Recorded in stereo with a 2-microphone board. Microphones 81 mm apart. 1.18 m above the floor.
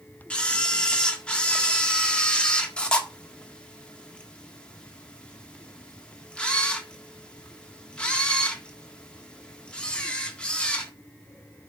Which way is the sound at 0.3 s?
10° left (ahead or behind).